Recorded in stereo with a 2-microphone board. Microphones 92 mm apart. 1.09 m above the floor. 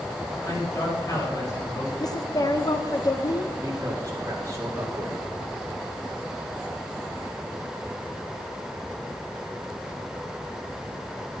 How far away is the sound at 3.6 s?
About 2.5 m.